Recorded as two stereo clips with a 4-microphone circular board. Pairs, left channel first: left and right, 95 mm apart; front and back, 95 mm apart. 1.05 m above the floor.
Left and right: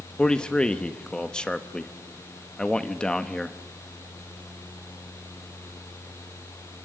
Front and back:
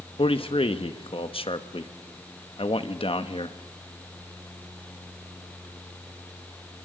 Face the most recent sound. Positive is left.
turn(degrees=10)